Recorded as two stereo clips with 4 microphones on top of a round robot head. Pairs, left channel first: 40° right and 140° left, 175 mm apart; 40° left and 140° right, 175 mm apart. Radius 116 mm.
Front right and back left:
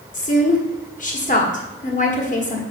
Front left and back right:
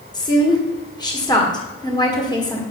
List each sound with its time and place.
0.1 s a woman speaking: 20° right, 1.7 m